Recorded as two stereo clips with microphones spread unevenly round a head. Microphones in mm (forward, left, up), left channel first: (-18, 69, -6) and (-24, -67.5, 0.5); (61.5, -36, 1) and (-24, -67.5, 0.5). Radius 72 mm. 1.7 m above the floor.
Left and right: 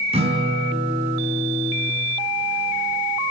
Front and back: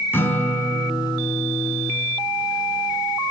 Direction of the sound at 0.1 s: 45° right.